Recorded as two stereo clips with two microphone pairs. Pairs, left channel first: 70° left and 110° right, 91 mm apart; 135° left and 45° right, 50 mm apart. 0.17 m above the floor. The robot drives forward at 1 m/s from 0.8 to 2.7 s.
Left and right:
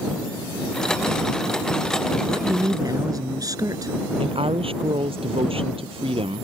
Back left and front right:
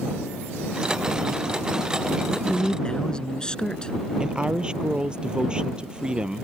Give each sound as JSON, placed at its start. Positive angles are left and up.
{"t": 2.3, "sound": "a man speaking", "azimuth_deg": -145}
{"t": 4.2, "sound": "a woman speaking", "azimuth_deg": -115}